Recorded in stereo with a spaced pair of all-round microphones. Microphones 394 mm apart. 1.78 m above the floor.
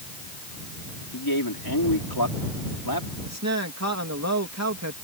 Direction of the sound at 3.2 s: 40° right (ahead or behind).